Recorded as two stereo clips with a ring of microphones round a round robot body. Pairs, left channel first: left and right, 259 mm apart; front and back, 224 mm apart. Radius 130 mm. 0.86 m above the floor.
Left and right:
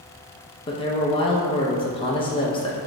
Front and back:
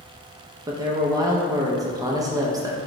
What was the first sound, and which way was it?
A man speaking, 130° left.